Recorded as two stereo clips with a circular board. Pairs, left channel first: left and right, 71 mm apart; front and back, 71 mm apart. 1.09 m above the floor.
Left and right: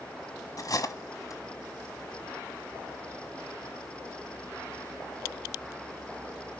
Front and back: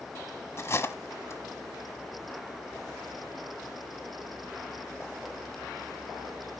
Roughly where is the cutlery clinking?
Ahead left.